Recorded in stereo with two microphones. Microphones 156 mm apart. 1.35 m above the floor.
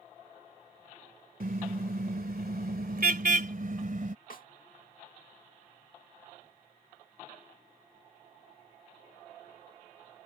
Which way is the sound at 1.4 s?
65° right (ahead or behind).